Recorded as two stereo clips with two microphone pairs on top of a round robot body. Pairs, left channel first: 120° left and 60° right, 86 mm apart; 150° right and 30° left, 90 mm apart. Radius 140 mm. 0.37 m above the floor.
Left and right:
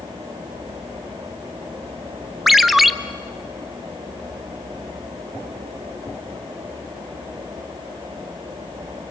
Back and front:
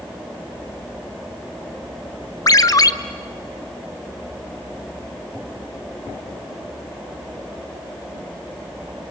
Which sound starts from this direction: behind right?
A ringtone, at 2.5 s.